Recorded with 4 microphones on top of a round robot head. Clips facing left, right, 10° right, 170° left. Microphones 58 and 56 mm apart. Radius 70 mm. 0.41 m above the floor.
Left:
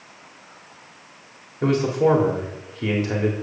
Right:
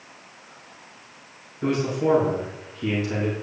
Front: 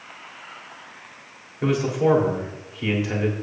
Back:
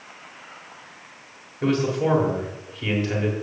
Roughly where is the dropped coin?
No dropped coin in this recording.